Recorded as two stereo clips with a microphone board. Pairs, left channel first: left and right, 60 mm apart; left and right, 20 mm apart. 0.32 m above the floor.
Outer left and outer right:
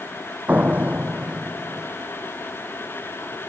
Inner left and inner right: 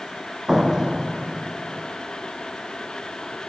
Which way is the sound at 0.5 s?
25° right (ahead or behind).